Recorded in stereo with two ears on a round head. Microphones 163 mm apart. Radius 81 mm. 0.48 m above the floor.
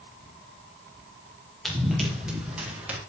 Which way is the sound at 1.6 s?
Centre (ahead or behind).